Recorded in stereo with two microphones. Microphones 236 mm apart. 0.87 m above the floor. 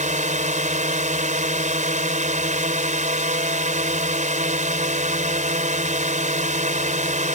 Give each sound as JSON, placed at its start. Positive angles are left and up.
{"t": 0.0, "sound": "a drone", "side_deg": -30}